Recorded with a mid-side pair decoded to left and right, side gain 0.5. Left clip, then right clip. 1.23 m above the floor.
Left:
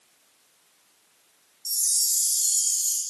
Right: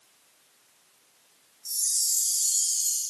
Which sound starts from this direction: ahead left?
A chime, at 1.6 s.